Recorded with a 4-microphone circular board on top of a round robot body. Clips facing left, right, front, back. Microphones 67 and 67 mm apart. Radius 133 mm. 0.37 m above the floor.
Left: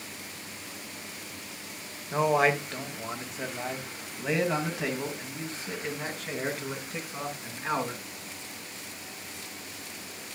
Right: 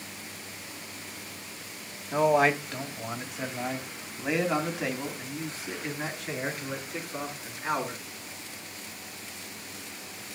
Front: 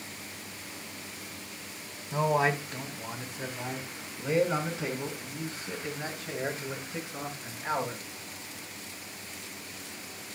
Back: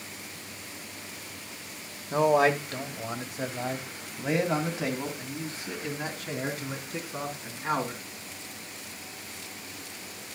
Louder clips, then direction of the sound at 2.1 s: Right 1 dB, back 4 dB; straight behind.